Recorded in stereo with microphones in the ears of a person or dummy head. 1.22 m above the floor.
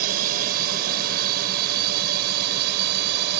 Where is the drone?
45° right (ahead or behind); by 3.4 s 55° right (ahead or behind).